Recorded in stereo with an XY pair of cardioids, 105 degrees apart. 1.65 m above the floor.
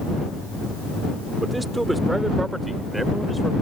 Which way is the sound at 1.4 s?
15° right.